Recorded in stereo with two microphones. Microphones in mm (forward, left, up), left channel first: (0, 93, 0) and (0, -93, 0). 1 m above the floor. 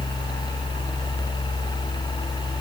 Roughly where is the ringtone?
No ringtone in this recording.